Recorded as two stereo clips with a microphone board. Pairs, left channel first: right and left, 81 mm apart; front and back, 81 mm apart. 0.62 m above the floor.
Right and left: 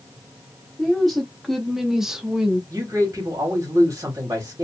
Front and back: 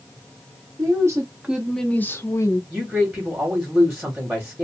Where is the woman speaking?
175° right, 0.9 m; by 2.6 s 10° left, 0.9 m.